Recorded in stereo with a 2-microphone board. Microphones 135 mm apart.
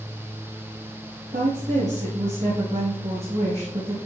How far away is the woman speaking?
About 5.5 m.